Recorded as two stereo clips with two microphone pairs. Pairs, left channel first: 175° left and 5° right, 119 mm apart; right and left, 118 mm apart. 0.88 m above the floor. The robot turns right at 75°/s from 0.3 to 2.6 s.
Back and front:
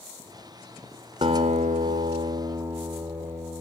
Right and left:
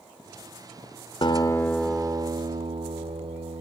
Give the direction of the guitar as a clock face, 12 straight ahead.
2 o'clock.